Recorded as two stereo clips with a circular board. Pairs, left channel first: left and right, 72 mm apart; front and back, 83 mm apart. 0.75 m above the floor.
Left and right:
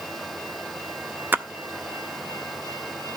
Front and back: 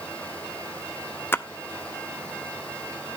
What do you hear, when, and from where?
1.3 s a splash: 45° right, 0.6 m